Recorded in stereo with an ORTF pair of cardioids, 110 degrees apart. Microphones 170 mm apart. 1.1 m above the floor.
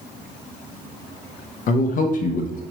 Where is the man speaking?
50° left, 0.6 m.